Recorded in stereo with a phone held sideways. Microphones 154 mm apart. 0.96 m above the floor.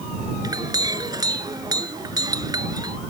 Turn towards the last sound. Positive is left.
turn(degrees=-25)  # may be behind; listen again after turning